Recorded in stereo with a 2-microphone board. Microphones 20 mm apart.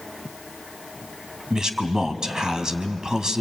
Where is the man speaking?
30° right (ahead or behind), 1.5 m.